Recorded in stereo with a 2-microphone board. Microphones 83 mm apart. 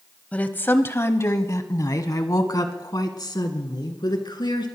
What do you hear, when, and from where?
0.3 s a woman speaking: 20° left (ahead or behind), 1.1 m; by 4.7 s 65° left (ahead or behind), 3 m